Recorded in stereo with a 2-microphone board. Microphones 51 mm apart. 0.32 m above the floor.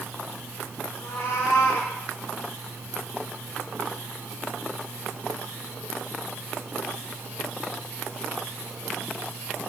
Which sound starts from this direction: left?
A cat meowing, at 1.0 s.